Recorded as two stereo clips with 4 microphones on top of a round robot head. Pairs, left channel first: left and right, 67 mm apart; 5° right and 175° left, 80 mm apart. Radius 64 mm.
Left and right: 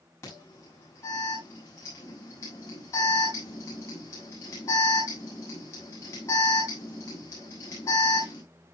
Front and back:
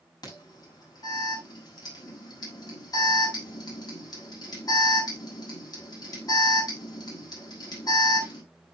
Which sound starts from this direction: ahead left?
An alarm, at 0.2 s.